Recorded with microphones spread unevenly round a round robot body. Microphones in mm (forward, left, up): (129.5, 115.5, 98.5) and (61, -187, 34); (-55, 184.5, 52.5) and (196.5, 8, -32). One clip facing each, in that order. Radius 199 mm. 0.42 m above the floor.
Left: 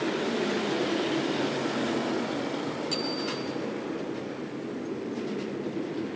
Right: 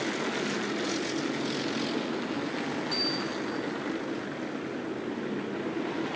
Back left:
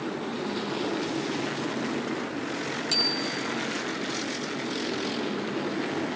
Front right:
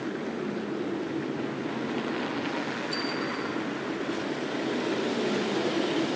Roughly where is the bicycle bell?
Behind left.